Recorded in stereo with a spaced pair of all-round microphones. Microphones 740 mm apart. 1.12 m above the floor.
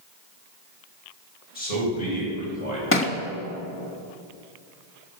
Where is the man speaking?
70° left (ahead or behind), 6.5 m; by 2.8 s 75° left (ahead or behind), 6 m.